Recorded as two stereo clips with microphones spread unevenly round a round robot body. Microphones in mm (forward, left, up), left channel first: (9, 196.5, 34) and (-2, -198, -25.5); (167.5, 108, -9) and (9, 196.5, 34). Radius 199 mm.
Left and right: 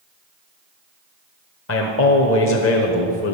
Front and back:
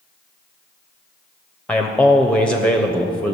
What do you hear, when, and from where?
1.7 s a man speaking: 35° left, 1.1 m